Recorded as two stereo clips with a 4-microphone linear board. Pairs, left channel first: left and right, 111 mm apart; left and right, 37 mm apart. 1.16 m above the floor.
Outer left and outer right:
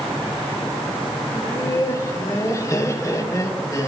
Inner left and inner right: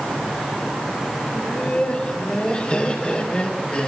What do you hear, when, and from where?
1.3 s laughter: 30° left (ahead or behind), 3.5 m